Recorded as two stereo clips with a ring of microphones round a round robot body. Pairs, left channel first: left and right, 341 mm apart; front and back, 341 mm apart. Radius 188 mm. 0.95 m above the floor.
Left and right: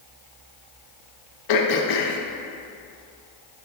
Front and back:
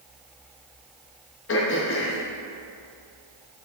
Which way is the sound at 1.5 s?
60° left.